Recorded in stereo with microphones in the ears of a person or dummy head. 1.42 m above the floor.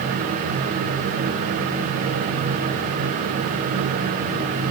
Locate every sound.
Only background noise.